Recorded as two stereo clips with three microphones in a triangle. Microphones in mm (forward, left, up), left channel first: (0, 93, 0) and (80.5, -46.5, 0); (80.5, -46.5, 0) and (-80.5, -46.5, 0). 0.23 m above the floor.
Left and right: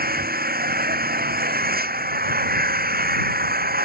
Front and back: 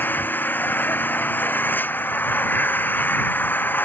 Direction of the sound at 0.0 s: 80° right.